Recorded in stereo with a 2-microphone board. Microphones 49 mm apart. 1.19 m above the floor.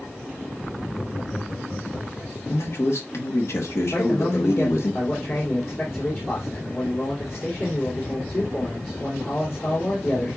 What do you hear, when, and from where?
0.9 s laughter: 35° left (ahead or behind), 2 m; by 2.3 s 20° left (ahead or behind), 1.5 m
2.5 s a man speaking: 65° left (ahead or behind), 1.5 m
3.9 s a man speaking: 45° left (ahead or behind), 3 m